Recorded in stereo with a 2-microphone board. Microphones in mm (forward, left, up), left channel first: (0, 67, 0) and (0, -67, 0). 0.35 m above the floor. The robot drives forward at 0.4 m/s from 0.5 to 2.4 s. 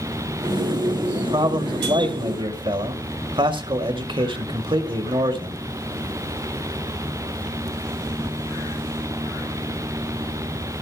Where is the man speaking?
40° right (ahead or behind), 1.7 m.